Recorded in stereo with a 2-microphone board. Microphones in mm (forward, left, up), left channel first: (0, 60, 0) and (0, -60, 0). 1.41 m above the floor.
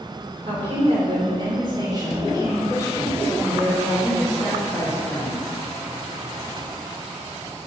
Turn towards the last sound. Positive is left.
turn(degrees=10)  # may be behind; listen again after turning